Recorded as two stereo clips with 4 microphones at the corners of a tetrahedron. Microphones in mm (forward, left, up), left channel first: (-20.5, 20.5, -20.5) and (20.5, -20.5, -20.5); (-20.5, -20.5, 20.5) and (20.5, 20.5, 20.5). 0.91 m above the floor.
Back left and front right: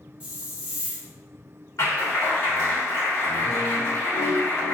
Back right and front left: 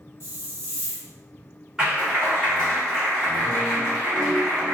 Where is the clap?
125° left, 1.9 m.